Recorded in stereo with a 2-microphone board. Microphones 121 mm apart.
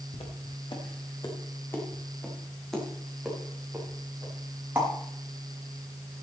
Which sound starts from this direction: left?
Footsteps, at 0.1 s.